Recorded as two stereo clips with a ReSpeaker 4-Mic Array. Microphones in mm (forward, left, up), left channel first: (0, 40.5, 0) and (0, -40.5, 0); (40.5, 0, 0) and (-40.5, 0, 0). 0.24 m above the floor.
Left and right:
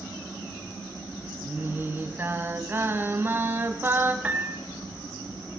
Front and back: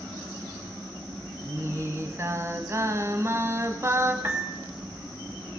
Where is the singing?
140° right, 1.5 m.